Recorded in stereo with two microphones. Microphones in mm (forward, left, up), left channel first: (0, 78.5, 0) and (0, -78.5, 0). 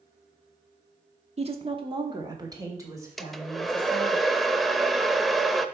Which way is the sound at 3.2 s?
Centre (ahead or behind).